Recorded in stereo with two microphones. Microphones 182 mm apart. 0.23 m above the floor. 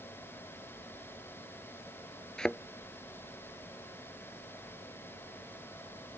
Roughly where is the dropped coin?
No dropped coin in this recording.